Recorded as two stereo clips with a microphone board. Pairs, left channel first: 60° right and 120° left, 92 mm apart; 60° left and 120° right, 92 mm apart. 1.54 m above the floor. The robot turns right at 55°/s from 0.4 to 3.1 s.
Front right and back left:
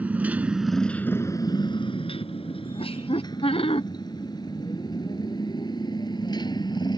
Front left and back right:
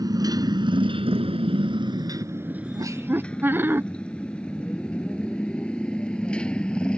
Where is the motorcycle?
165° right; by 7.0 s 20° right.